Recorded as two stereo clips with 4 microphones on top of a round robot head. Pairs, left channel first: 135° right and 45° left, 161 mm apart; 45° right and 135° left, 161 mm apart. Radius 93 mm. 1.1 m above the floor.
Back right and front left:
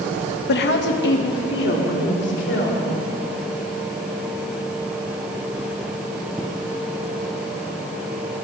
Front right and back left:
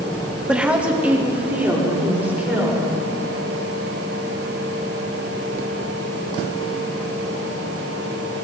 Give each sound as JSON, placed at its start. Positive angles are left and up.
{"t": 0.5, "sound": "a woman speaking", "azimuth_deg": -140, "distance_m": 1.2}